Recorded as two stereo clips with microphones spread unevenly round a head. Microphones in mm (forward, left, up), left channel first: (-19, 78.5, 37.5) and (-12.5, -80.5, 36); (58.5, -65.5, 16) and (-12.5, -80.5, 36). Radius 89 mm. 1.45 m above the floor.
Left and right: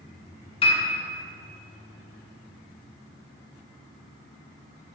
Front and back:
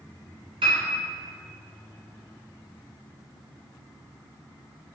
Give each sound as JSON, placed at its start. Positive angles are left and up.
{"t": 0.6, "sound": "a piano", "azimuth_deg": 150, "distance_m": 1.9}